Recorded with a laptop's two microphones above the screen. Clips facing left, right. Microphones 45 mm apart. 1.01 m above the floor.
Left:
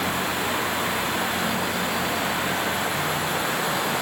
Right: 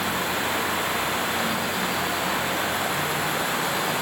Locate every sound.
Only background noise.